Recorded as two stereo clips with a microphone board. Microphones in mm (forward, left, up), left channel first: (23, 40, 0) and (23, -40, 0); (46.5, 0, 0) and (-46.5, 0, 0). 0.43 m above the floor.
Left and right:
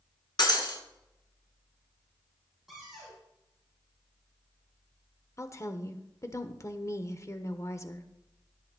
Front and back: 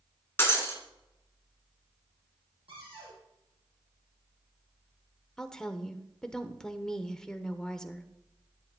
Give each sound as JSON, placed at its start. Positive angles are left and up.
{"t": 0.4, "sound": "breaking glass", "azimuth_deg": 65, "distance_m": 3.0}
{"t": 2.7, "sound": "a cupboard door", "azimuth_deg": -175, "distance_m": 6.5}
{"t": 5.4, "sound": "a woman speaking", "azimuth_deg": 80, "distance_m": 1.1}